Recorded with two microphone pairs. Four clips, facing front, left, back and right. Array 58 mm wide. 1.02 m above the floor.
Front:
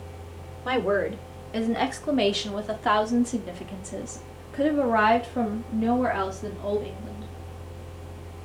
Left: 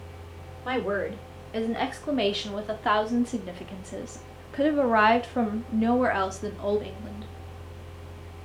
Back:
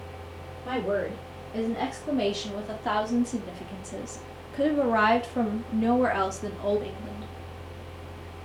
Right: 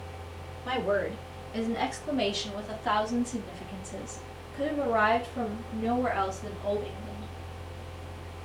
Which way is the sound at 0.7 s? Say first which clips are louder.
Left 1 dB, front 4 dB; 25° left.